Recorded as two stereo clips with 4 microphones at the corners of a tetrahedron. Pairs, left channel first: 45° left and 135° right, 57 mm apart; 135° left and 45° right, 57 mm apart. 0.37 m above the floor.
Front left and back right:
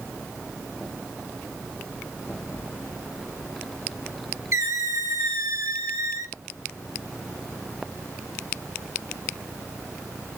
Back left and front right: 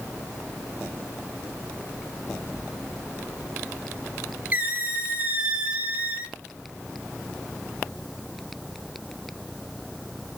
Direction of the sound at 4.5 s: 105° right.